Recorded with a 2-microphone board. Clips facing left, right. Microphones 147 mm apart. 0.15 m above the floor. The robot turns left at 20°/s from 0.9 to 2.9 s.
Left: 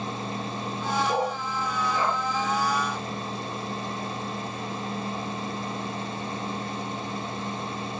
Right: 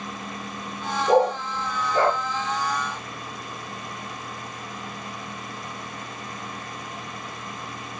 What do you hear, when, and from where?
1.1 s a dog barking: 45° right (ahead or behind), 0.9 m; by 2.2 s 65° right (ahead or behind), 0.9 m